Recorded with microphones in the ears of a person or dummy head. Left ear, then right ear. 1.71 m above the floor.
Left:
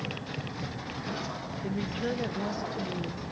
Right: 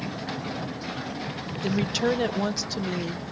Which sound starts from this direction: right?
A woman speaking, at 1.6 s.